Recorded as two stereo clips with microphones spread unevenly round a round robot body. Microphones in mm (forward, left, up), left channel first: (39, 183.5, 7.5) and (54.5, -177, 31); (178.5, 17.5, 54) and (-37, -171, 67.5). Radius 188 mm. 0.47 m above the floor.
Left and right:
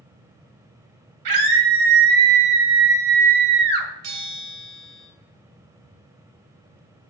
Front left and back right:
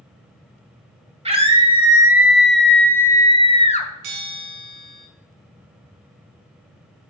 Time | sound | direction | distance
1.2 | a scream | 70° right | 2.5 m
4.0 | a bell | 135° right | 3 m